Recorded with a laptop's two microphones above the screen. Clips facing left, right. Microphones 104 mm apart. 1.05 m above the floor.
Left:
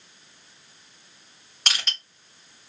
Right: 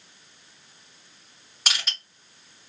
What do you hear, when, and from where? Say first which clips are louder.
1.7 s crushing: left 1 dB; 5° right (ahead or behind), 1.5 m